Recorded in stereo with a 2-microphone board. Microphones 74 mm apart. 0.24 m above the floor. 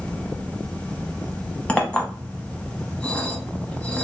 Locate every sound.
1.7 s a clink: 15° left (ahead or behind), 0.8 m